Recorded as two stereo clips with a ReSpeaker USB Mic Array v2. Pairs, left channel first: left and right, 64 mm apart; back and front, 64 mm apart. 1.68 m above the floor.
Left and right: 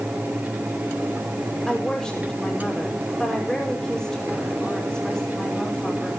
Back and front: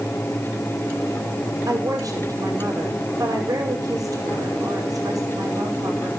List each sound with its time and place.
1.7 s a woman speaking: 10° left, 5.5 m